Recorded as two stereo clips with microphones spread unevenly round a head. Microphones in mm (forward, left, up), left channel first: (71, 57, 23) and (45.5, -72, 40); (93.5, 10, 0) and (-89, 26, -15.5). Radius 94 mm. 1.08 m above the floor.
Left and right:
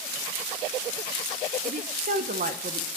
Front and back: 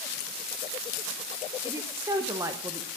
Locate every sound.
1.6 s a woman speaking: 115° right, 0.9 m